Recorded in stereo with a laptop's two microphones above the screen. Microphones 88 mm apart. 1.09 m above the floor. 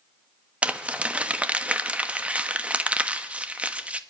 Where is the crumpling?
15° right (ahead or behind), 1.2 m.